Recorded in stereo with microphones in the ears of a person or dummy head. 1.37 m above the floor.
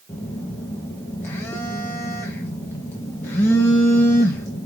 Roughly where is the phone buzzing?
Centre.